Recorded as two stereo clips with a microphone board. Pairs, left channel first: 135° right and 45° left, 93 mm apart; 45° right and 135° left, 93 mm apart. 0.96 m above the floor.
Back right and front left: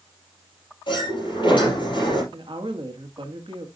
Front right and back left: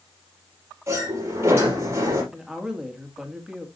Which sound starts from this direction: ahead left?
A woman speaking, at 2.3 s.